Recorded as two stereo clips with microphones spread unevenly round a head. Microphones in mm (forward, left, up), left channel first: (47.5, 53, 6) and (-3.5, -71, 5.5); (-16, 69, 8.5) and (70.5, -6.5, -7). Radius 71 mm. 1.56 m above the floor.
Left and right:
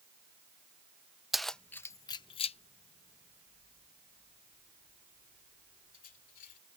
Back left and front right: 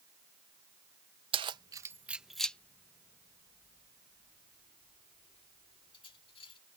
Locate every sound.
1.3 s keys jangling: 25° right; by 6.6 s 105° left